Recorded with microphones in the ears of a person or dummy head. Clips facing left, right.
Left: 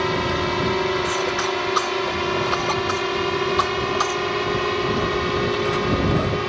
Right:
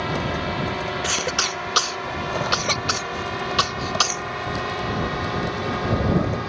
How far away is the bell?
I don't hear a bell.